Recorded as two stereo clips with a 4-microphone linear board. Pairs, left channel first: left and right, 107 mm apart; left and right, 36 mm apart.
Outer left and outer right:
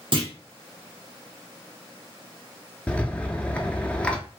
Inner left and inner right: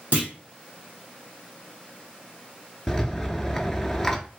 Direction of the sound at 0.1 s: 55° right (ahead or behind).